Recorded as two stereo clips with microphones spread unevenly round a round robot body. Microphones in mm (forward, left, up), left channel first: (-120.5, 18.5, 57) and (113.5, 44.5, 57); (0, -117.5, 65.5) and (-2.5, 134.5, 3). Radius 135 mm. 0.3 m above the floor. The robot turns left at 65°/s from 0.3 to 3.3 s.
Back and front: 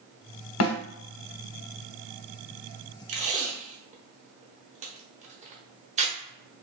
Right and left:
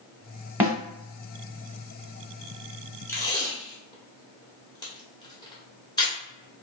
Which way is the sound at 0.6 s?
170° left.